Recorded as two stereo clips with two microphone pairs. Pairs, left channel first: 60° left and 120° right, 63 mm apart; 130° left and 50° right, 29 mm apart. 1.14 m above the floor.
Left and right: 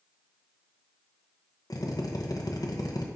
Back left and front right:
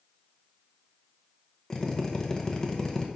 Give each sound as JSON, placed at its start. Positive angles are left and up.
{"t": 1.7, "sound": "a drill", "azimuth_deg": 65, "distance_m": 0.8}